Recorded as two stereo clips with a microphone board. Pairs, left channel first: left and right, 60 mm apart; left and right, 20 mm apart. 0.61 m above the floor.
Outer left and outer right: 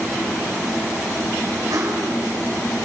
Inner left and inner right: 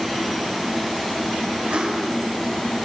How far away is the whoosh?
About 5.5 m.